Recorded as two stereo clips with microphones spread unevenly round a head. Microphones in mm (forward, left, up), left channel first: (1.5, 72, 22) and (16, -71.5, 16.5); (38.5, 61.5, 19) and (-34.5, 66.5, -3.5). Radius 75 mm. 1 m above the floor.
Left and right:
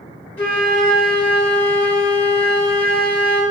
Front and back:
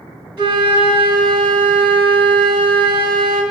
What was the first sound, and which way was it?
A flute, 175° left.